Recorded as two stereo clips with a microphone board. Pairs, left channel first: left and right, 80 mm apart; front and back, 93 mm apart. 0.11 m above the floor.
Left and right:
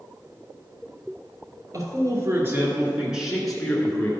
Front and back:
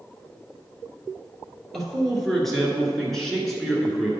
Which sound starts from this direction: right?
A man speaking, at 1.7 s.